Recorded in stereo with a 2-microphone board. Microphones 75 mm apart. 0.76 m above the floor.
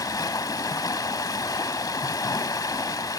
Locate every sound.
0.0 s running water: 50° left (ahead or behind), 0.8 m